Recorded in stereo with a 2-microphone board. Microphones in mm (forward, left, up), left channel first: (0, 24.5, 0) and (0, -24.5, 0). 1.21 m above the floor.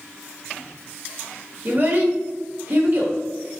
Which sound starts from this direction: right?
A child speaking, at 1.6 s.